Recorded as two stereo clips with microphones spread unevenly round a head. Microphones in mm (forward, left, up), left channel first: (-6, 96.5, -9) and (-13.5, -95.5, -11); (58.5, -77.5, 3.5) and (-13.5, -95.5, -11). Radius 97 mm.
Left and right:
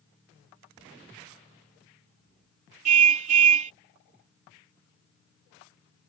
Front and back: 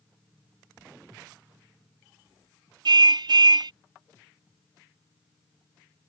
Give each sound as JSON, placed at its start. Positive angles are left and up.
{"t": 2.9, "sound": "a car horn", "azimuth_deg": -145}